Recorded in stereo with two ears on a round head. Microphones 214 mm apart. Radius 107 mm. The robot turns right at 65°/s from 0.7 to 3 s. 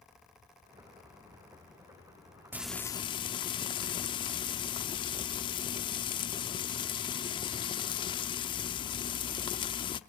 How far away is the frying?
About 0.6 m.